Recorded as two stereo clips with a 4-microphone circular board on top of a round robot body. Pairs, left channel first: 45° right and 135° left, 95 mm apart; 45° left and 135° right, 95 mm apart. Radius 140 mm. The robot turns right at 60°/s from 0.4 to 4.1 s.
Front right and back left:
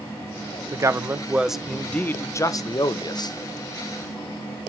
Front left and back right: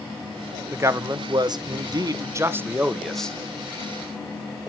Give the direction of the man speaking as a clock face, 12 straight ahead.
6 o'clock.